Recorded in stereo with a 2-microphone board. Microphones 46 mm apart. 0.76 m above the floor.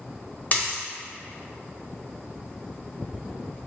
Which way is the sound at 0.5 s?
35° left (ahead or behind).